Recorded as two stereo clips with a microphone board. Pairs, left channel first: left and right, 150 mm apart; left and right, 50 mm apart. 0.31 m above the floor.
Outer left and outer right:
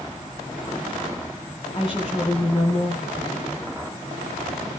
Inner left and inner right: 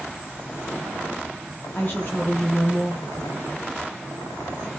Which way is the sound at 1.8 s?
35° left (ahead or behind).